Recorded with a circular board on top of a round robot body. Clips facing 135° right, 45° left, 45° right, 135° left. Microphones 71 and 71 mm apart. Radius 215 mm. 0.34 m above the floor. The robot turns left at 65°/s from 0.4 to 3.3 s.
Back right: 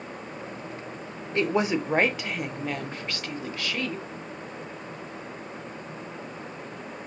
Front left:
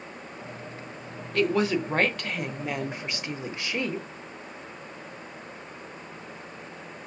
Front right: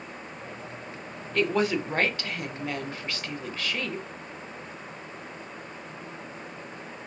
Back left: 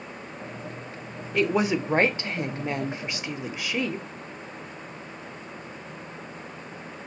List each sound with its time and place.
1.3 s a woman speaking: 155° right, 1.3 m; by 4.0 s 80° left, 1.3 m